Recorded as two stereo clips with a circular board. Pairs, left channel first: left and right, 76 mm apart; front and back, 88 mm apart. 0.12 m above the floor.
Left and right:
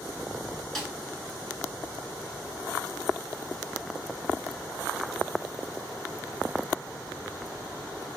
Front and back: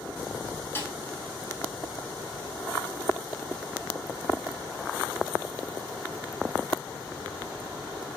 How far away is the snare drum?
About 0.8 m.